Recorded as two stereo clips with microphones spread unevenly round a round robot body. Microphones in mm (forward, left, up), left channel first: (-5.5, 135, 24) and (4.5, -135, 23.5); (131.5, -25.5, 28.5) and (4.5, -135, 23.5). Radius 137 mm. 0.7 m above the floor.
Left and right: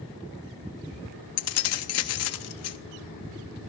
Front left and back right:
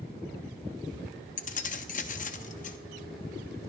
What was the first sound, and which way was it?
Keys jangling, 80° left.